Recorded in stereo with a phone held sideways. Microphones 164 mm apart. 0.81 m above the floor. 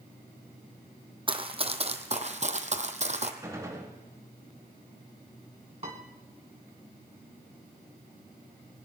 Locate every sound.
1.3 s running footsteps: 30° right (ahead or behind), 1.3 m; by 3.3 s 45° right (ahead or behind), 1.2 m
3.4 s a gunshot: 20° right (ahead or behind), 3 m
5.8 s a piano: 40° right (ahead or behind), 2.5 m